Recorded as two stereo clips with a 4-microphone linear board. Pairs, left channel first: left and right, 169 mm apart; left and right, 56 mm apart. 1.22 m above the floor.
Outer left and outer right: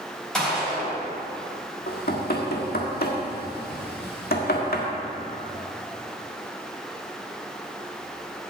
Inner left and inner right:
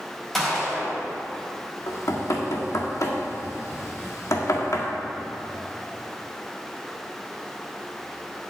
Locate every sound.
0.3 s a gunshot: 5° left (ahead or behind), 4 m
1.9 s knocking: 65° left (ahead or behind), 1.6 m